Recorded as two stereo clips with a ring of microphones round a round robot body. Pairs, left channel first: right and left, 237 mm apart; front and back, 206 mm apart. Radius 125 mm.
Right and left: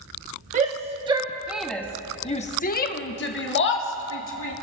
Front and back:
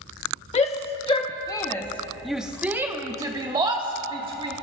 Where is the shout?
45° left, 1.1 m; by 4.5 s 115° right, 1.8 m.